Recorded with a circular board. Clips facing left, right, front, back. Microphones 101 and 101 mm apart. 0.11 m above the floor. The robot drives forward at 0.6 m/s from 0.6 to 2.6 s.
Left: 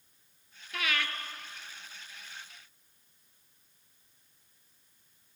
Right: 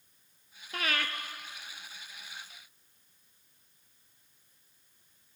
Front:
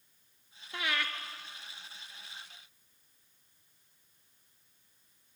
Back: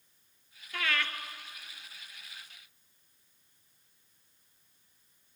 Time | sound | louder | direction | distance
0.7 | breathing | even, back 1 dB | 60° right | 0.8 m